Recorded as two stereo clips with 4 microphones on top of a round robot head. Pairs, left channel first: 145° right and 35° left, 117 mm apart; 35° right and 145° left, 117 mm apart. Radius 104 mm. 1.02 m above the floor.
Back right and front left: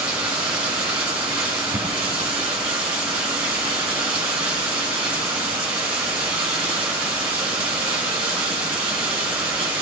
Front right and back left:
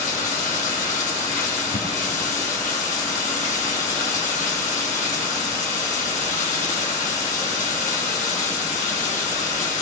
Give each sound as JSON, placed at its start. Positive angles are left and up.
{"t": 0.0, "sound": "running water", "azimuth_deg": -15, "distance_m": 3.0}